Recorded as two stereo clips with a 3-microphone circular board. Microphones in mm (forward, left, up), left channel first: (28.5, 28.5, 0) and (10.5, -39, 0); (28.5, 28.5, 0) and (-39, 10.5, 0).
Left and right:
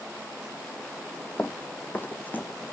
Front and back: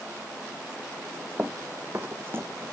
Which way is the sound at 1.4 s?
135° left.